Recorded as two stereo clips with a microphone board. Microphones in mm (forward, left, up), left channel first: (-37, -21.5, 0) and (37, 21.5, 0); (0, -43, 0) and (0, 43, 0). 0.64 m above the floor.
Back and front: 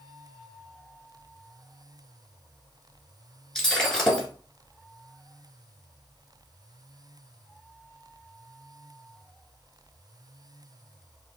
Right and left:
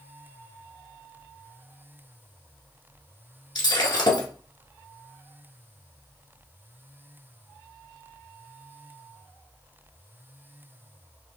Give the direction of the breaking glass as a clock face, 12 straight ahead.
2 o'clock.